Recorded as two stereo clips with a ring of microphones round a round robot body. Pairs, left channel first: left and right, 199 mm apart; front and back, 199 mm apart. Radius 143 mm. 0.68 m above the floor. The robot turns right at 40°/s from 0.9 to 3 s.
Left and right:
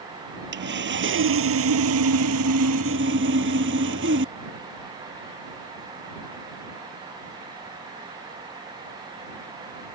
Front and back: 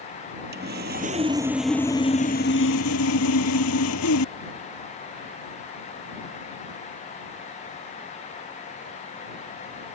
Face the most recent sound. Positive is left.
turn(degrees=-35)